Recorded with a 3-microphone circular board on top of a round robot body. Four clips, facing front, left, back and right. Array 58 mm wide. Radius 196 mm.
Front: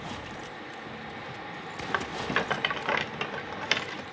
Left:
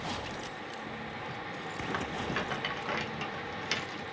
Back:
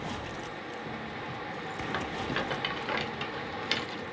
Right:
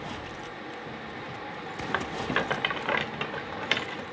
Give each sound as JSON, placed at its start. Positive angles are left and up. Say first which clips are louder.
{"t": 1.9, "sound": "a rattle", "louder": "right 7 dB, front 5 dB", "azimuth_deg": -50, "distance_m": 0.7}